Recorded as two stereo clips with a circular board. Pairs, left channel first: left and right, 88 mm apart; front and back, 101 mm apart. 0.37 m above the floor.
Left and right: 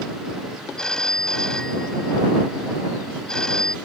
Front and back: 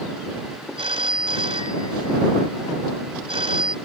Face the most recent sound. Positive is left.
turn(degrees=170)